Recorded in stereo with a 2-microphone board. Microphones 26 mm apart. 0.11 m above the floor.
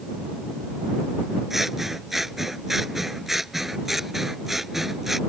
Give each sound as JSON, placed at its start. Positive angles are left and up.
{"t": 1.5, "sound": "scissors", "side_deg": -10}